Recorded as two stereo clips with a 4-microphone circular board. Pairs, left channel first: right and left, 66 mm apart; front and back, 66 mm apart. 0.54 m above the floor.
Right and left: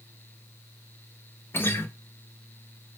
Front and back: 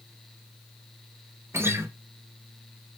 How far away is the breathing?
I don't hear breathing.